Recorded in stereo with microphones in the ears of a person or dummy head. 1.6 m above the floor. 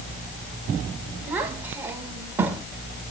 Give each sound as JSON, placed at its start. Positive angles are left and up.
{"t": 1.3, "sound": "a child speaking", "side_deg": -10, "distance_m": 1.5}